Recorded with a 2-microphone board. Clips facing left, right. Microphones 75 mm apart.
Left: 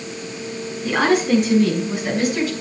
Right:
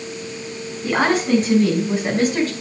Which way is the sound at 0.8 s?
35° right (ahead or behind).